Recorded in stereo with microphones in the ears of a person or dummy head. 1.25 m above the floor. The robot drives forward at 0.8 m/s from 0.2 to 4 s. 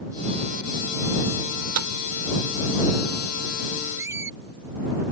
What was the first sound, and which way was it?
A microwave, 85° right.